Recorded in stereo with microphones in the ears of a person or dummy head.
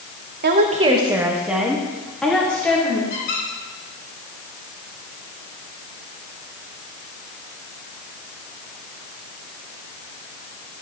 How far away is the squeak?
About 3.5 m.